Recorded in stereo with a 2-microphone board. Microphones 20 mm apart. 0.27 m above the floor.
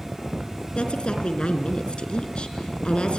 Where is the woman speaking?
50° left (ahead or behind), 3.5 m.